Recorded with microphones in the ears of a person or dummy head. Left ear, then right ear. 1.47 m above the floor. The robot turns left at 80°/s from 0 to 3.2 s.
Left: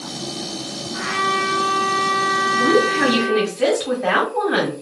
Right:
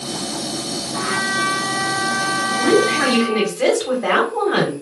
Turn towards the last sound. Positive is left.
turn(degrees=-175)